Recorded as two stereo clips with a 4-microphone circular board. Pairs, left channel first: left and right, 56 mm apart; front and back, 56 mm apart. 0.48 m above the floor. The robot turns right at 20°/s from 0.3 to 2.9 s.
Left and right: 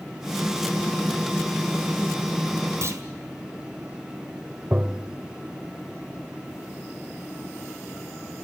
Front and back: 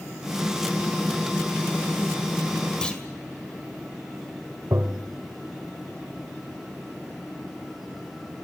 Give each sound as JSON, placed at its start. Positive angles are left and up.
{"t": 2.8, "sound": "a clunk", "azimuth_deg": -75, "distance_m": 2.0}
{"t": 4.7, "sound": "tapping", "azimuth_deg": -155, "distance_m": 1.0}